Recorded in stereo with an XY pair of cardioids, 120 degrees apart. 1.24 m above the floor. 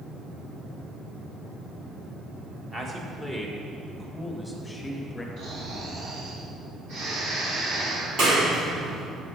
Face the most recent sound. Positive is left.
turn(degrees=-60)